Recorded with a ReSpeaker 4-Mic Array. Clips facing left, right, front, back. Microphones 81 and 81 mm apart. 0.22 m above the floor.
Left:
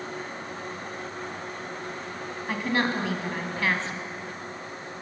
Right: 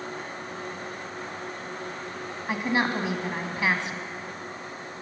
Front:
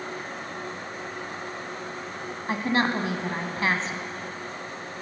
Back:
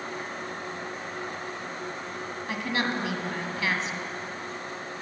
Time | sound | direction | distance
2.5 | a woman speaking | 25° right | 1.6 m